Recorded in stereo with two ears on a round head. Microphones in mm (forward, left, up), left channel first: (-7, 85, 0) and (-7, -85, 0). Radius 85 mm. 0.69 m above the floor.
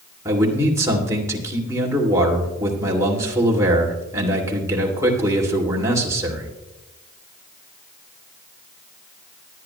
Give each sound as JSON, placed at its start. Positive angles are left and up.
{"t": 0.2, "sound": "a man speaking", "side_deg": -15, "distance_m": 2.0}